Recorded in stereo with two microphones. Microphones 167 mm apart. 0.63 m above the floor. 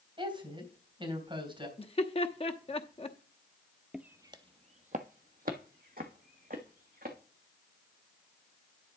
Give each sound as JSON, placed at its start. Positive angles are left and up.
{"t": 0.2, "sound": "a woman speaking", "side_deg": -30, "distance_m": 3.5}
{"t": 1.8, "sound": "laughter", "side_deg": 35, "distance_m": 0.9}
{"t": 3.9, "sound": "footsteps", "side_deg": -5, "distance_m": 0.7}